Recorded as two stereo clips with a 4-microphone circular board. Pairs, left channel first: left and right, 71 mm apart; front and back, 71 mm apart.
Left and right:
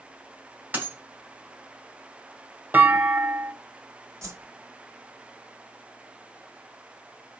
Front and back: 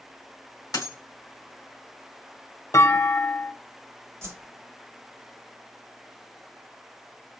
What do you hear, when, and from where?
0.7 s a dropped coin: 25° right, 1.9 m
2.7 s a clunk: 30° right, 0.7 m
4.2 s a whoosh: 135° right, 0.9 m